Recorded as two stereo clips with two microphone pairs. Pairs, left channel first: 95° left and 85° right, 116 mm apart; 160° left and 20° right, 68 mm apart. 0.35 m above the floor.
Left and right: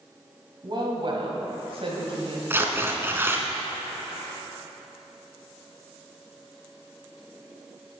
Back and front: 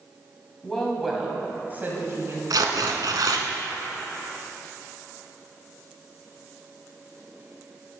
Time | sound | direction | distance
0.6 | a woman speaking | 125° right | 2 m
2.5 | tearing paper | 20° right | 0.9 m